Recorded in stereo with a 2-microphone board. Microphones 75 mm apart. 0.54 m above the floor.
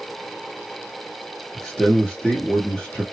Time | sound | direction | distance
1.6 | a man speaking | 10° left (ahead or behind) | 0.8 m